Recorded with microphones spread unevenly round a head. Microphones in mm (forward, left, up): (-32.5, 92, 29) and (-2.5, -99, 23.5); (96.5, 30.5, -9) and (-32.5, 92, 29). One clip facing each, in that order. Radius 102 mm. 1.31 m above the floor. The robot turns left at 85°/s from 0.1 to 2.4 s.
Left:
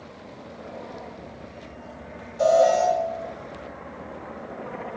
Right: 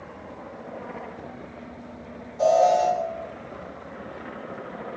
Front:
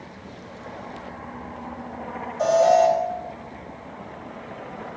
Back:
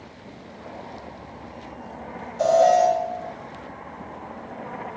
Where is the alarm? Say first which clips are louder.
Left 1 dB, even; straight behind, 3 m.